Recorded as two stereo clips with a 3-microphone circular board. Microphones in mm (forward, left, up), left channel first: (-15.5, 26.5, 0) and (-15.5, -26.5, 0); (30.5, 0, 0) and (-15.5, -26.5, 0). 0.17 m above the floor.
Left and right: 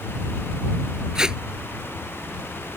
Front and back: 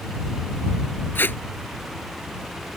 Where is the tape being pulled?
15° right.